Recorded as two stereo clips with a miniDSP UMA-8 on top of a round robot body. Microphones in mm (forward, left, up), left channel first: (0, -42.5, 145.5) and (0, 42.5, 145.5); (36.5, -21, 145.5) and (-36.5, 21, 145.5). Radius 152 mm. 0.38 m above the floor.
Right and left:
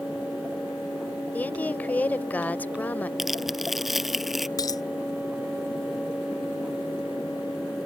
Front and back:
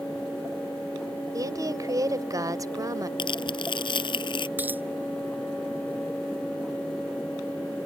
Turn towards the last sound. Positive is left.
turn(degrees=-140)